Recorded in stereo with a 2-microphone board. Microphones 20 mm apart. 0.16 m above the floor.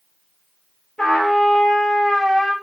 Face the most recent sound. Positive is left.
turn(degrees=50)  # may be behind; listen again after turning